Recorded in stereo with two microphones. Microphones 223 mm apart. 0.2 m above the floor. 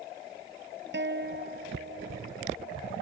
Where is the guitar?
60° right (ahead or behind).